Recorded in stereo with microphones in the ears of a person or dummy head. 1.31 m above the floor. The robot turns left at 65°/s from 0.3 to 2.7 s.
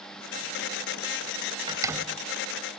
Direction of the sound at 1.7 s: 25° right (ahead or behind).